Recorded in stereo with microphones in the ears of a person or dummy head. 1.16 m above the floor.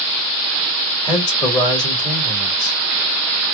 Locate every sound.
1.0 s a man speaking: 30° left (ahead or behind), 1.5 m